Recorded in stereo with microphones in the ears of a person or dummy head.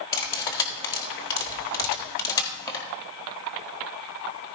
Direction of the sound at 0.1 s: 20° left (ahead or behind).